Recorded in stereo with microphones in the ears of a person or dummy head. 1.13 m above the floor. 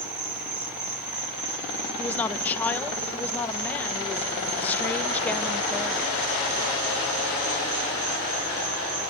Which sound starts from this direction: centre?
A woman speaking, at 2.0 s.